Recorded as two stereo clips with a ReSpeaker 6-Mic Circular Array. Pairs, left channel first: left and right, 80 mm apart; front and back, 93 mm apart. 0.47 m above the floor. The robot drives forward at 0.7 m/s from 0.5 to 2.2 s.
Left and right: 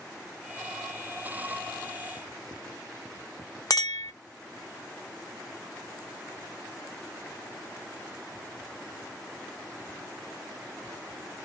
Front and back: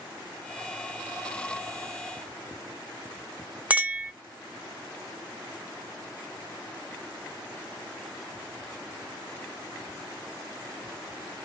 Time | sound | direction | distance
3.7 | a clink | 110° left | 0.5 m